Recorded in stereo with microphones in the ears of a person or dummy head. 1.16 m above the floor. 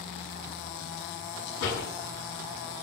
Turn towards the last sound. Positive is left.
turn(degrees=70)  # may be behind; listen again after turning